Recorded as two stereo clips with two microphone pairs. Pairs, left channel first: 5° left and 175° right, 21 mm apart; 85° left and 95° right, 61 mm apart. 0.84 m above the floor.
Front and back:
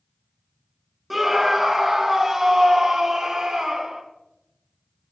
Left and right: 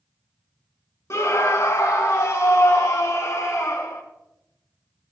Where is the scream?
100° left, 1.4 m; by 4.0 s 115° left, 3.5 m.